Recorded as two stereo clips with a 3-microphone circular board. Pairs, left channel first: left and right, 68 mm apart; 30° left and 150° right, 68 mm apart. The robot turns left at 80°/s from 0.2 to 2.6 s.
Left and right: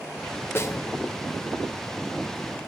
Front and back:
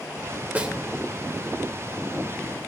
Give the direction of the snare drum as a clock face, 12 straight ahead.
7 o'clock.